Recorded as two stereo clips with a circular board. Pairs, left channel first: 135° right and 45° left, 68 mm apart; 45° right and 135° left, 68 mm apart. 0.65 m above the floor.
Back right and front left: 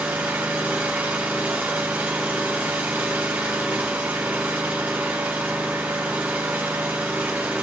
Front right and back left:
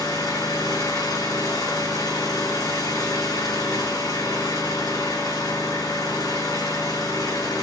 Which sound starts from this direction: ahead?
An engine running, at 0.0 s.